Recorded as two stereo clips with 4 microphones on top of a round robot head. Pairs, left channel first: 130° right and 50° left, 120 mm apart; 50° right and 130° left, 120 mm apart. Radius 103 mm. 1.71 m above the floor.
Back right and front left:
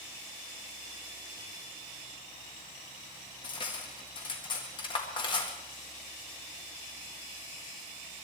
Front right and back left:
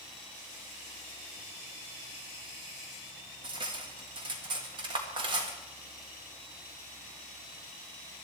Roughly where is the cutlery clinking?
Behind.